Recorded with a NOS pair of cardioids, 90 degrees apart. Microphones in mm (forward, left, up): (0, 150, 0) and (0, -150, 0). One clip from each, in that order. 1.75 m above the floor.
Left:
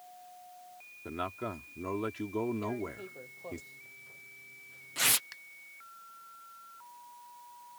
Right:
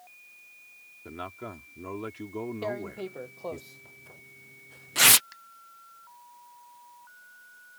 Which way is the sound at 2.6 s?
55° right.